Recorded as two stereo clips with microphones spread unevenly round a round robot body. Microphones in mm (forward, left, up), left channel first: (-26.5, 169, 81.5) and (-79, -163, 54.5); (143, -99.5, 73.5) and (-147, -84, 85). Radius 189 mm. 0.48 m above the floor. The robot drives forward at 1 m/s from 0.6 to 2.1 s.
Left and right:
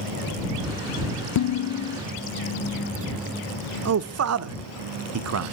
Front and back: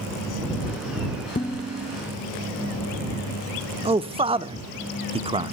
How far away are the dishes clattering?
About 0.6 m.